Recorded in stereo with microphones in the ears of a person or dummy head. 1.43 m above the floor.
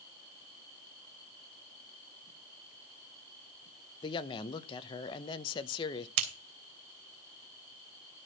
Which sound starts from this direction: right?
Scissors, at 6.2 s.